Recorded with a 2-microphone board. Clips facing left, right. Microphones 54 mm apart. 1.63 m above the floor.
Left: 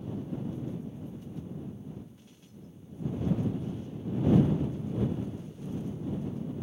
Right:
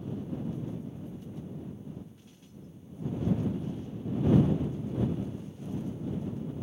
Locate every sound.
Only background noise.